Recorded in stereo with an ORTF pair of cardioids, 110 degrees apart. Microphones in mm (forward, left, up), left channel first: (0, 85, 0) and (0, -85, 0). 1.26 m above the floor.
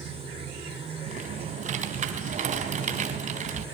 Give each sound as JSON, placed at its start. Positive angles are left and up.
{"t": 0.0, "sound": "running water", "azimuth_deg": -35, "distance_m": 5.0}
{"t": 1.1, "sound": "typing on a keyboard", "azimuth_deg": -45, "distance_m": 3.5}